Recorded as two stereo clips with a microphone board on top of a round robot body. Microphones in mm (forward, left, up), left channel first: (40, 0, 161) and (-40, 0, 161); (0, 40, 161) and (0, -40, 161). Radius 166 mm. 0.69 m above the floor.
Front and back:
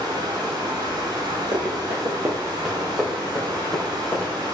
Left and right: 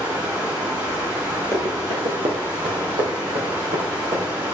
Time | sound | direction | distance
0.0 | running water | 150° right | 4.5 m
1.5 | running footsteps | 140° right | 1.3 m